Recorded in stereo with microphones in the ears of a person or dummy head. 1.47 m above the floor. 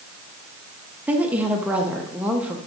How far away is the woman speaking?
About 0.7 m.